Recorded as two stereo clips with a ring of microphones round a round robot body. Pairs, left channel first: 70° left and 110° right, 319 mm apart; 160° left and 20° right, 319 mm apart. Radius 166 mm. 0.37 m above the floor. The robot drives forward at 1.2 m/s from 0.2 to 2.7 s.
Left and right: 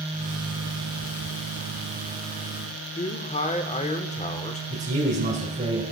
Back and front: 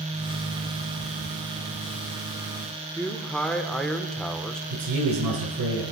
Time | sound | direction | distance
3.0 | a man speaking | 75° left | 0.9 m
4.7 | a man speaking | 50° right | 4 m